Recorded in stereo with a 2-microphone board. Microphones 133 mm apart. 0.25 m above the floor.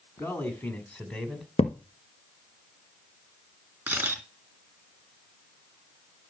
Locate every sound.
0.2 s a man speaking: 20° left (ahead or behind), 2.5 m; by 1.5 s centre (ahead or behind), 2 m
1.6 s a thud: 55° left (ahead or behind), 1.4 m
3.9 s a camera shutter: 10° right (ahead or behind), 3 m